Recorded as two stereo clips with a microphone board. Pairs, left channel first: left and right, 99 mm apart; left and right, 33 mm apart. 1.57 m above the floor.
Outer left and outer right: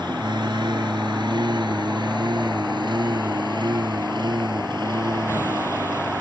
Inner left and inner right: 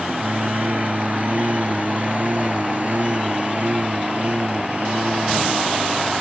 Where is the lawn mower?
50° right (ahead or behind).